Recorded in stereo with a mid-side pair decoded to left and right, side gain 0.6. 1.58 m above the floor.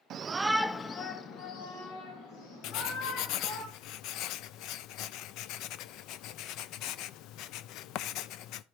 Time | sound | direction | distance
0.1 | a shout | 50° right | 1.0 m
2.6 | writing | 65° left | 0.5 m